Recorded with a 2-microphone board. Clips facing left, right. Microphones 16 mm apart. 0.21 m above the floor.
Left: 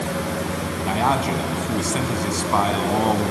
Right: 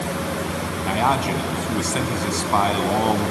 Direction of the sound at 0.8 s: 5° right (ahead or behind).